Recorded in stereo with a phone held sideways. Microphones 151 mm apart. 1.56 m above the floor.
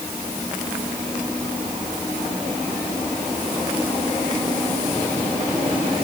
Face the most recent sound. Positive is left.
No sound to turn to.